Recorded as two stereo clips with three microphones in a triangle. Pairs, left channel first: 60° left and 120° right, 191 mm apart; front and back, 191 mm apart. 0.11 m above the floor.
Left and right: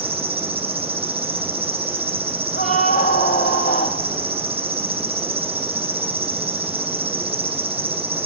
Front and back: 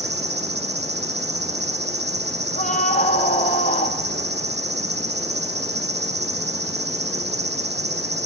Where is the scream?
25° left, 2.5 m.